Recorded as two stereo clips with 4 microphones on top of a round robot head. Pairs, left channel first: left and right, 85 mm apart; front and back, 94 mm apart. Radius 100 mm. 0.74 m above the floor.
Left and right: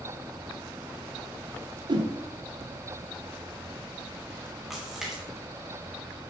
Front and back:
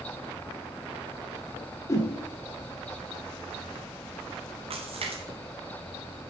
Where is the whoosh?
60° right, 1.7 m.